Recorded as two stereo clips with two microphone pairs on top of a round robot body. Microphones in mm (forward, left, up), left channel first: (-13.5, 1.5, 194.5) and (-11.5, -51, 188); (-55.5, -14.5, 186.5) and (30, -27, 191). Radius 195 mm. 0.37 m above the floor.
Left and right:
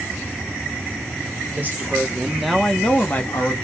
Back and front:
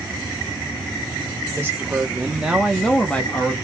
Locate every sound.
1.5 s a woman speaking: 65° right, 1.4 m; by 3.5 s 120° left, 1.2 m